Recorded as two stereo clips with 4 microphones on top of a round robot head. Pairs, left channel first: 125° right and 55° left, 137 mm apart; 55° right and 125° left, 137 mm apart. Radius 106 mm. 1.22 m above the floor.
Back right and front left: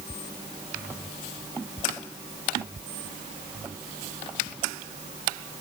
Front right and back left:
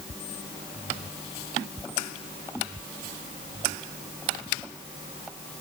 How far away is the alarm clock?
I don't hear an alarm clock.